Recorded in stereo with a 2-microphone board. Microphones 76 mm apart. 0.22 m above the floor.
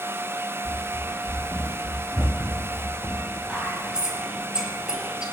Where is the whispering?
10° right (ahead or behind), 3.5 m.